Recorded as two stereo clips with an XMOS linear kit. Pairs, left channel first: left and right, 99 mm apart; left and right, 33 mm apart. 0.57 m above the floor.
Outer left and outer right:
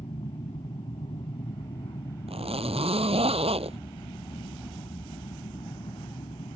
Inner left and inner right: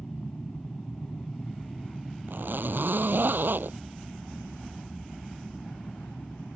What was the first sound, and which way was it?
An aircraft, 70° left (ahead or behind).